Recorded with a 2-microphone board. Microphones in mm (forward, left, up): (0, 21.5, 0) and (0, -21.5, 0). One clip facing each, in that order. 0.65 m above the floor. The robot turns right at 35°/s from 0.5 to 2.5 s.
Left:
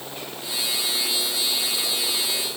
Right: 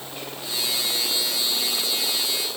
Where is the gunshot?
No gunshot in this recording.